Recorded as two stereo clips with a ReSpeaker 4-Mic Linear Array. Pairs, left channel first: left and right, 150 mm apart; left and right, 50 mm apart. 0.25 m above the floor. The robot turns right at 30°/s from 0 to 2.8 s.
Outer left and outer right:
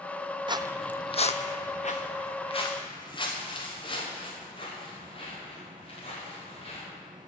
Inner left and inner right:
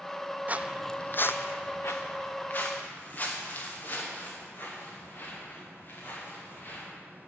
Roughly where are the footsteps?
Right.